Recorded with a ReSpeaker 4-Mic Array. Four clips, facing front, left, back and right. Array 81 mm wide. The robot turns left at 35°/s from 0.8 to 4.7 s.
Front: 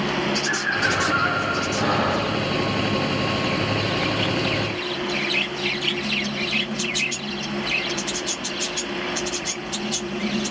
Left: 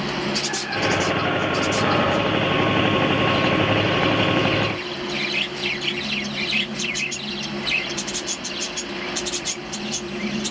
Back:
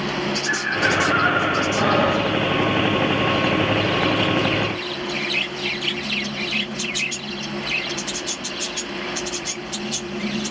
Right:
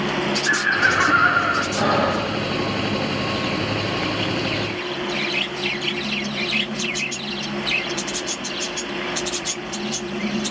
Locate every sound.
0.5 s laughter: 90° right, 3.5 m; by 1.7 s 120° right, 3.5 m
1.8 s breathing: 105° right, 9 m; by 2.3 s 125° right, 9 m